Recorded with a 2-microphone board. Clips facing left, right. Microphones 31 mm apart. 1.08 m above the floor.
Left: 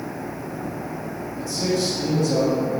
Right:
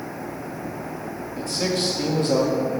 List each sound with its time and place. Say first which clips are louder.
1.4 s a man speaking: left 1 dB; 65° right (ahead or behind), 2 m; by 2.5 s 50° right (ahead or behind), 1.9 m